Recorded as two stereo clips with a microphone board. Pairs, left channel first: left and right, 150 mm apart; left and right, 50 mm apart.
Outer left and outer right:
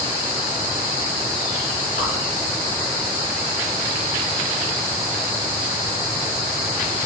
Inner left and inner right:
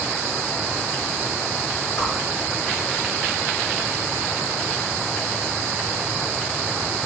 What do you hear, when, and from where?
2.0 s a whoosh: 75° left (ahead or behind), 5 m